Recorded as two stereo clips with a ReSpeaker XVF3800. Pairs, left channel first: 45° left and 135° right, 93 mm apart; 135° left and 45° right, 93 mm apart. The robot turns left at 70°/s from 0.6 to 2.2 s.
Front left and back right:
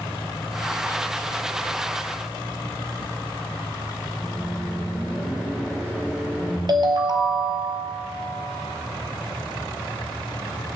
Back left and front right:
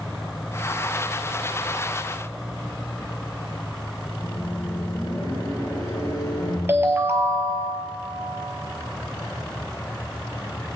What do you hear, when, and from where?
4.2 s a microwave: 165° left, 2 m
6.7 s a ringtone: 105° right, 1.0 m